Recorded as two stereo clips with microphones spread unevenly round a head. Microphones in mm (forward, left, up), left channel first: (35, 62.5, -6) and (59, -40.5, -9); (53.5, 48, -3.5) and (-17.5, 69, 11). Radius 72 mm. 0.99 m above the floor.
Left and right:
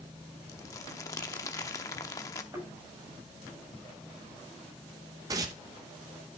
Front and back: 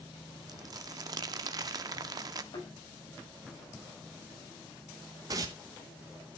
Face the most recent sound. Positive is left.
turn(degrees=-140)